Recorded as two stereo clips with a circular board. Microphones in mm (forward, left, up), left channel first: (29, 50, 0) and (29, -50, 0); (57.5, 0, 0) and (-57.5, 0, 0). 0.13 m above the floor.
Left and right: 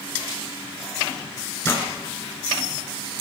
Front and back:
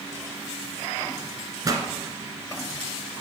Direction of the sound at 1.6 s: 145° left.